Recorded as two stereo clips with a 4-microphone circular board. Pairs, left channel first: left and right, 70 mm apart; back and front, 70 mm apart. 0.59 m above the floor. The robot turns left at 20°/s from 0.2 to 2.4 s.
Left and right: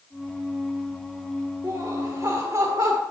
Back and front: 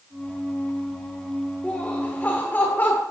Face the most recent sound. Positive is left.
turn(degrees=-120)